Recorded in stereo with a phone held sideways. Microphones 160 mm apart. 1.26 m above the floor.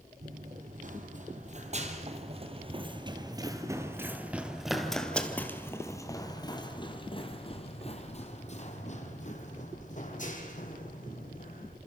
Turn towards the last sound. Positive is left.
turn(degrees=60)  # may be behind; listen again after turning